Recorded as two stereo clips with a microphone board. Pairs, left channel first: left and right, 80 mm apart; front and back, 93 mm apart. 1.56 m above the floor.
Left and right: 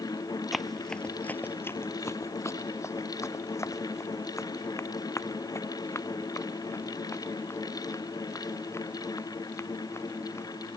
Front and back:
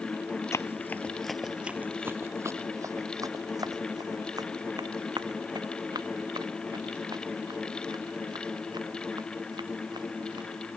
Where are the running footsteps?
Straight ahead; by 10.6 s 140° left.